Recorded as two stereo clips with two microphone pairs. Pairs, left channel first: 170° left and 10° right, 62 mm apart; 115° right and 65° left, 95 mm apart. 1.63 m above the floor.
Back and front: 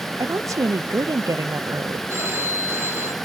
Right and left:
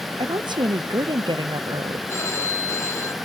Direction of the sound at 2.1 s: 55° right.